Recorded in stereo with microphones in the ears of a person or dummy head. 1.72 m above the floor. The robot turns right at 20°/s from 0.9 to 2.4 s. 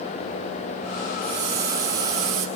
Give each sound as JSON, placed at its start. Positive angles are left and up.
{"t": 1.2, "sound": "a hiss", "side_deg": -10, "distance_m": 1.6}